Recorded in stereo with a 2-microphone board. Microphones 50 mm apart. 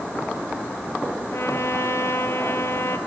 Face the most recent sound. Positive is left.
turn(degrees=60)  # may be behind; listen again after turning